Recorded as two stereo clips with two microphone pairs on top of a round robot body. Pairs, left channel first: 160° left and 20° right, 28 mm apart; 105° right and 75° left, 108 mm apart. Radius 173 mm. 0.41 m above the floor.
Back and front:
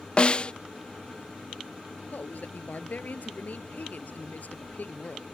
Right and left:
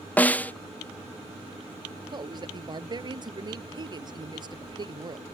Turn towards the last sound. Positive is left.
turn(degrees=125)